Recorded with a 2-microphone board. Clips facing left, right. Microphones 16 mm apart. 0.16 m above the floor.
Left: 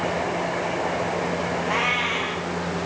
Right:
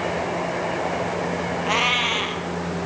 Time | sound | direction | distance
1.6 | a cat meowing | 50° right (ahead or behind) | 1.7 m